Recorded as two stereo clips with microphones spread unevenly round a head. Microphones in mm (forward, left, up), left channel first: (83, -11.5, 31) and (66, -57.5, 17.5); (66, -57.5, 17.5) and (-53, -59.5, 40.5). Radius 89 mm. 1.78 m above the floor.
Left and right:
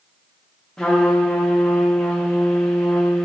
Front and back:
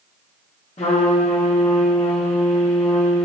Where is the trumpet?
15° left, 1.0 m.